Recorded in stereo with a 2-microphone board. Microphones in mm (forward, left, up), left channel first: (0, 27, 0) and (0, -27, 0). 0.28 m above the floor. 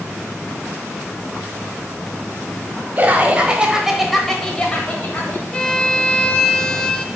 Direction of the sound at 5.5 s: 15° left (ahead or behind).